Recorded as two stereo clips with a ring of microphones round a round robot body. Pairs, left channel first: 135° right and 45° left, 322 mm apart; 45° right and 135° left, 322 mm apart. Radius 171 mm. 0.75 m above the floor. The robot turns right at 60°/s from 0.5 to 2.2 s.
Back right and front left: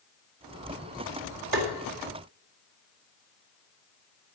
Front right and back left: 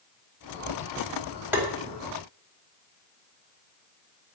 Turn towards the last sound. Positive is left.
turn(degrees=90)